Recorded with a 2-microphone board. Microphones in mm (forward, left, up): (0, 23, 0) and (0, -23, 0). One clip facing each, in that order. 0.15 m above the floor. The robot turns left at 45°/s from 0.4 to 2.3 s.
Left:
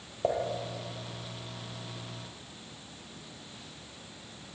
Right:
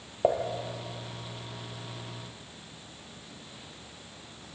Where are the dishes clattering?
20° right (ahead or behind), 2.5 m; by 0.4 s 15° right (ahead or behind), 2.5 m.